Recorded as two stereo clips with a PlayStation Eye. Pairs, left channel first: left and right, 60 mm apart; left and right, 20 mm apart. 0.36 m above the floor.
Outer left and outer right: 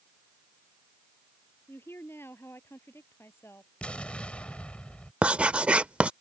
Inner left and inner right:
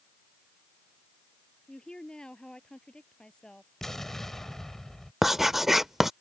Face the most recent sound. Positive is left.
turn(degrees=-20)  # may be behind; listen again after turning